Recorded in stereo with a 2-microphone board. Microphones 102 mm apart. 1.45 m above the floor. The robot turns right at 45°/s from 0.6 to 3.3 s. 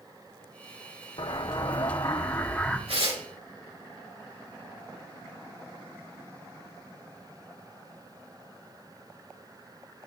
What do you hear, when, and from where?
1.2 s an explosion: 100° left, 0.9 m; by 2.8 s 170° left, 0.9 m
2.9 s tearing paper: 70° right (ahead or behind), 3.5 m; by 3.2 s 55° right (ahead or behind), 3.5 m